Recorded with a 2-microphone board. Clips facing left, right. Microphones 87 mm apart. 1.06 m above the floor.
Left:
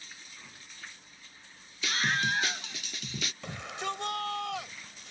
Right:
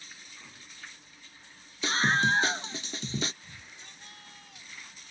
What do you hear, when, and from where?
1.8 s a scream: 30° right (ahead or behind)
3.4 s a shout: 85° left